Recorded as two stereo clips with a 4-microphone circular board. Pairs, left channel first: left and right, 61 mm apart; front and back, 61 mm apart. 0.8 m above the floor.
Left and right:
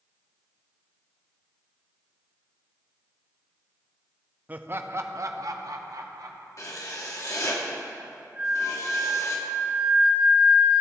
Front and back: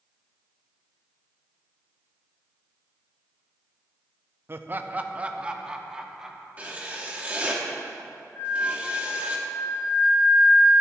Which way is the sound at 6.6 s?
115° left.